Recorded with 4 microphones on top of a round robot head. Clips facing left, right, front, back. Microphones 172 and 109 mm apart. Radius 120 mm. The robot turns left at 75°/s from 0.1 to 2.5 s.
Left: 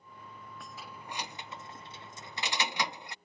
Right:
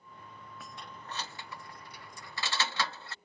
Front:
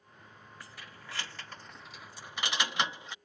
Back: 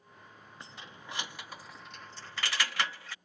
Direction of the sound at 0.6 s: 175° right.